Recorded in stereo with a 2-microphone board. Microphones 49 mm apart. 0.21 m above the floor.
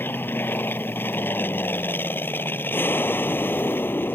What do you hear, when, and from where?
0.0 s an aircraft: 45° left (ahead or behind)